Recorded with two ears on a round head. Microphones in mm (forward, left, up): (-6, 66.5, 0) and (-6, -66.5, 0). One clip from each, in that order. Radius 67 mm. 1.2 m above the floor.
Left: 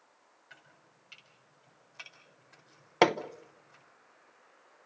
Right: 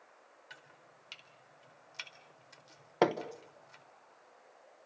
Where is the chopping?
85° right, 4 m.